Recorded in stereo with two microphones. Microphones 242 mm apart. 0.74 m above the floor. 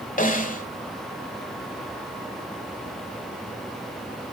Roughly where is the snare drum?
Left.